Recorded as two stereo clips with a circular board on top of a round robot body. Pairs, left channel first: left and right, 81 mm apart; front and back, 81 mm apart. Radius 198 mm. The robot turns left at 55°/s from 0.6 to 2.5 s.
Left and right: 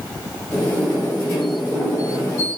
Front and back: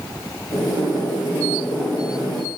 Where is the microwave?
I don't hear a microwave.